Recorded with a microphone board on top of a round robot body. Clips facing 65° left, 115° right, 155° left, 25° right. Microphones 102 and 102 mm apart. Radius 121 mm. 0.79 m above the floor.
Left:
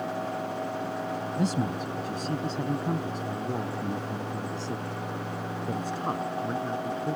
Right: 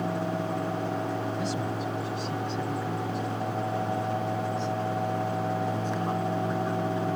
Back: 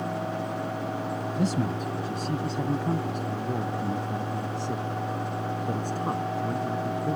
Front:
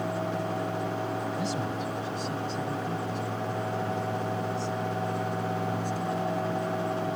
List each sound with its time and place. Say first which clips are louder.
1.4 s a man speaking: left 2 dB, back 3 dB; 110° left; by 7.2 s 125° left